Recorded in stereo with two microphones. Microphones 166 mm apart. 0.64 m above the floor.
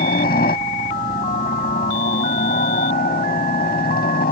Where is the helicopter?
65° left (ahead or behind).